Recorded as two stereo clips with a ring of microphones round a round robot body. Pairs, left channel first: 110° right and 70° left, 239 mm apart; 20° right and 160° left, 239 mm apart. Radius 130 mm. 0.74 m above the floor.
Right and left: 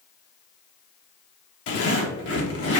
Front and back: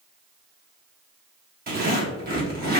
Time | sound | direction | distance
1.7 | a zipper | 150° right | 1.5 m